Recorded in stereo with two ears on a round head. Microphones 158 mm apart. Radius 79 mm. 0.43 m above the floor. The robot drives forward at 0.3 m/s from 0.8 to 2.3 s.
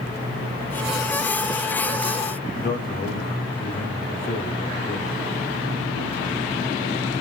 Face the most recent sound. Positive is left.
turn(degrees=50)  # may be behind; listen again after turning